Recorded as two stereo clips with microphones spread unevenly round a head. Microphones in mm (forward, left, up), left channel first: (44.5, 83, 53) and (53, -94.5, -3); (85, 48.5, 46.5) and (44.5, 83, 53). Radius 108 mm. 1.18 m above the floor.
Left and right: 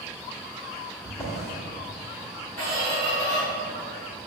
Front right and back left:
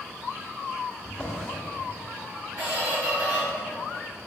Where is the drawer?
30° left, 1.3 m.